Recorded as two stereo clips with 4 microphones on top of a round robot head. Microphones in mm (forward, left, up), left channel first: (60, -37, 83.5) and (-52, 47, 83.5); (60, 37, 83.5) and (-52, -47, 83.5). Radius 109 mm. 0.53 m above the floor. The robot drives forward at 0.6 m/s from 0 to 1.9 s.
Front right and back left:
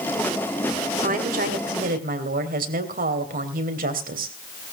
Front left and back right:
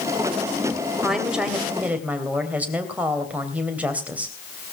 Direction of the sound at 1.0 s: 130° left.